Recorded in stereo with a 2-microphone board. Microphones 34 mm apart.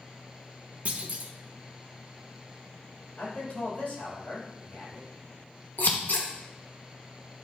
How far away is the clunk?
About 0.7 m.